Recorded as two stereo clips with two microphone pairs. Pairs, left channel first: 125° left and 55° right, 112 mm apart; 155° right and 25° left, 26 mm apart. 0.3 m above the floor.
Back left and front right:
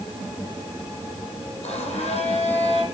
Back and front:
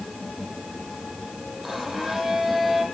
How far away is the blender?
About 8.5 m.